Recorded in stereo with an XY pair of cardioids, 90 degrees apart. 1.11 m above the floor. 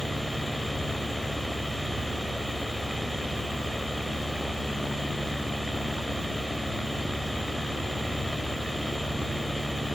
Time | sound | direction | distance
0.0 | a fan | 5° left | 2 m